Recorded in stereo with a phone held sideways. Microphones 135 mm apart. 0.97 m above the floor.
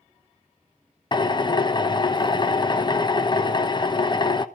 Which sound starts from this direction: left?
A drill, at 1.1 s.